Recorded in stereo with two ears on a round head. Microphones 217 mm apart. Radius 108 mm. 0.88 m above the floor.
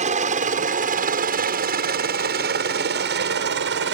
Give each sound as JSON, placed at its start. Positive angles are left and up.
{"t": 0.0, "sound": "a helicopter", "side_deg": -30}